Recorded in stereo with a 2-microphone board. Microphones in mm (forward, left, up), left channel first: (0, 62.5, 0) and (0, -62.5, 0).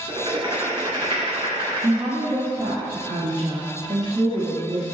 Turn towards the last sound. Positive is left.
turn(degrees=-35)  # may be behind; listen again after turning